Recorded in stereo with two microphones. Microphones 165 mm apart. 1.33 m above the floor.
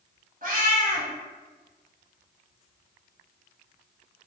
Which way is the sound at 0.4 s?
55° right (ahead or behind).